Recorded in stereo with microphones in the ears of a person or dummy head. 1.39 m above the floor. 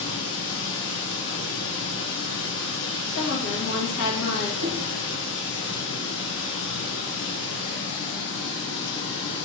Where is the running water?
65° left (ahead or behind), 2.5 m.